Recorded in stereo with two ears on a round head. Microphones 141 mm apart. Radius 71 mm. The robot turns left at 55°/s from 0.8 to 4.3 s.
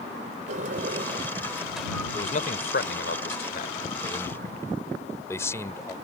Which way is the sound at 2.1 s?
40° left (ahead or behind).